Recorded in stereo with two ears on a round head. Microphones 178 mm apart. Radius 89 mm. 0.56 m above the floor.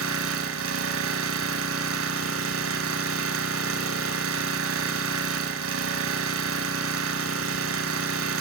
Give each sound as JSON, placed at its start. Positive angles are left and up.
{"t": 0.0, "sound": "an engine running", "side_deg": -75, "distance_m": 1.6}